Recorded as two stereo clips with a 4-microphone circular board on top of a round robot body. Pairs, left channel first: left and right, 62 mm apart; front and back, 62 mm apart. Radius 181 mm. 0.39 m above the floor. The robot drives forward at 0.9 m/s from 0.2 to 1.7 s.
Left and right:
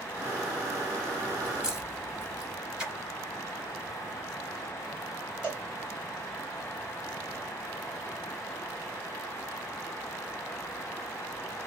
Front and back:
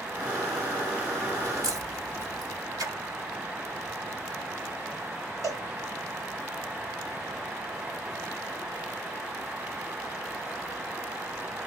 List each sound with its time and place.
1.4 s a crack: 165° right, 2 m; by 2.6 s 170° right, 2.5 m
2.8 s a splash: 165° right, 0.7 m
5.4 s a cowbell: 160° right, 2 m